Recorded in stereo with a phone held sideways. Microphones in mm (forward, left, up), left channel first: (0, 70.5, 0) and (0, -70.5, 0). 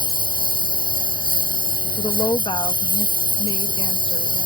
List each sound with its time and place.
0.0 s a lawn mower: 80° right
2.0 s a woman speaking: 35° left (ahead or behind)